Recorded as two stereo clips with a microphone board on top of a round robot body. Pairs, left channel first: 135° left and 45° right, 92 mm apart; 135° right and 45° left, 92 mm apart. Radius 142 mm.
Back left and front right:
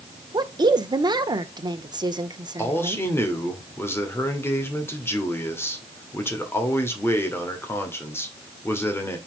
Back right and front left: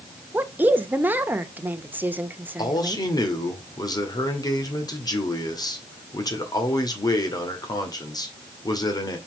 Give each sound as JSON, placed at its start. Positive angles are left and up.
{"t": 0.3, "sound": "a woman speaking", "azimuth_deg": -20, "distance_m": 1.3}
{"t": 2.6, "sound": "a man speaking", "azimuth_deg": -165, "distance_m": 2.0}